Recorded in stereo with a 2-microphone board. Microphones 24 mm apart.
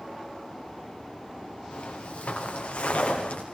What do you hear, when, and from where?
1.7 s footsteps: 80° left, 7 m